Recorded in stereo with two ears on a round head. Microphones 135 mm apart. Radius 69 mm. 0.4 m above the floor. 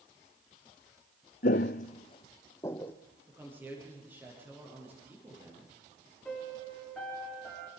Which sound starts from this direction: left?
Footsteps, at 1.4 s.